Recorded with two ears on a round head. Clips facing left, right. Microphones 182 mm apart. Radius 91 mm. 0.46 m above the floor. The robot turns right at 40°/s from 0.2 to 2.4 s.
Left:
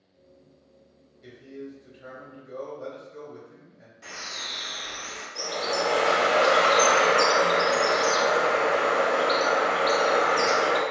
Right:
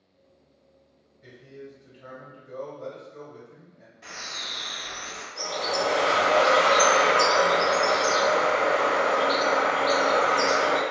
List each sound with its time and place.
1.2 s a man speaking: 100° left, 1.7 m; by 3.9 s 145° left, 1.7 m
4.0 s a bird: 5° left (ahead or behind), 1.1 m
5.3 s a bird: 35° left (ahead or behind), 0.8 m